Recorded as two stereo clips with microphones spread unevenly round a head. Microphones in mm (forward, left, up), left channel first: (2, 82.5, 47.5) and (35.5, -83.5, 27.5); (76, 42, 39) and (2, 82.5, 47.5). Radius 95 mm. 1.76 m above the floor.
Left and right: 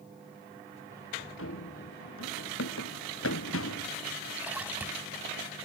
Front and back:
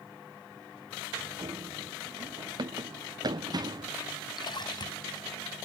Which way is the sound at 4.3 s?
5° left.